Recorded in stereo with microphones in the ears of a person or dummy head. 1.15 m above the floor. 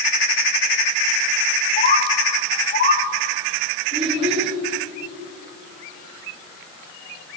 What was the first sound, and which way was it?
A bird, 35° left (ahead or behind).